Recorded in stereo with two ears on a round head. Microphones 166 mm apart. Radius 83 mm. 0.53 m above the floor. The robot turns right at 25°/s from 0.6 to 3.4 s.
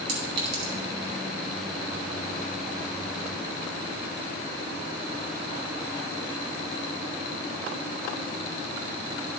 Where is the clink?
60° right (ahead or behind), 4 m.